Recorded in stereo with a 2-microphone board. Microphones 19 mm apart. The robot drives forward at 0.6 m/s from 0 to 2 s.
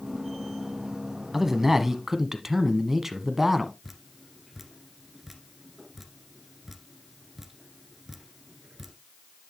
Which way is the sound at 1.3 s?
15° right (ahead or behind).